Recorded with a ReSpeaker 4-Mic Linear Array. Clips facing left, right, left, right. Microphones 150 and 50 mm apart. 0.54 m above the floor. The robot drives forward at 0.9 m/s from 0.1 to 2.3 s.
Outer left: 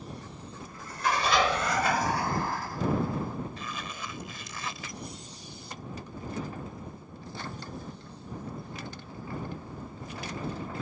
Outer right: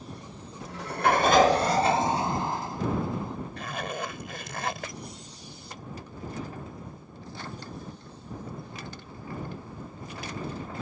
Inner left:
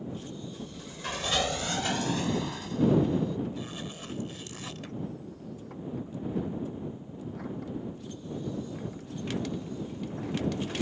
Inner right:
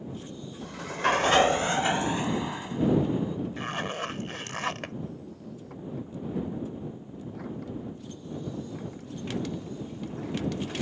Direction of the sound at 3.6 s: 65° right (ahead or behind).